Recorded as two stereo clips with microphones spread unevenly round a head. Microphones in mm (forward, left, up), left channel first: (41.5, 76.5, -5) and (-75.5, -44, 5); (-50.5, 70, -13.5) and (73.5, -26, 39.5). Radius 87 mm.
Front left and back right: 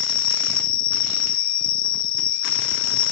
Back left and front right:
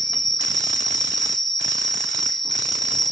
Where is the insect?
55° left, 0.9 m.